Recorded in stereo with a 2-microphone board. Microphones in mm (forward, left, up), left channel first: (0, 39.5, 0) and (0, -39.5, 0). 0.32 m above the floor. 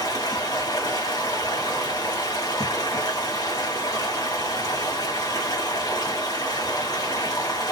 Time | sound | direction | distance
0.0 | running water | 55° left (ahead or behind) | 2 m